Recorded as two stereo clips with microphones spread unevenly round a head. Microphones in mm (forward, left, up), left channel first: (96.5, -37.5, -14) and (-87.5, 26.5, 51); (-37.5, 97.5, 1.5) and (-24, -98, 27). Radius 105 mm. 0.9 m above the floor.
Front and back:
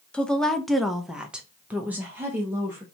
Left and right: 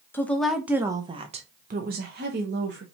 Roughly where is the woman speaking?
Ahead left.